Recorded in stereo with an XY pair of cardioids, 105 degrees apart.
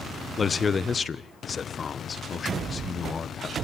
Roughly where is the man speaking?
Ahead left.